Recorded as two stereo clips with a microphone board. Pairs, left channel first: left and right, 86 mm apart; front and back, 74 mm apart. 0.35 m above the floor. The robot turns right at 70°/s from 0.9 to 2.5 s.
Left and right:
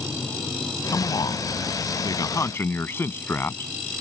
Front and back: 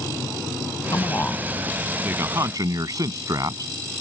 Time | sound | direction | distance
0.9 | a man speaking | 40° left | ?